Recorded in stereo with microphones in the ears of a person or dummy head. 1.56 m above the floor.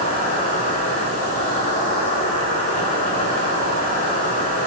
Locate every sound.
0.0 s an insect: 40° left (ahead or behind), 8.5 m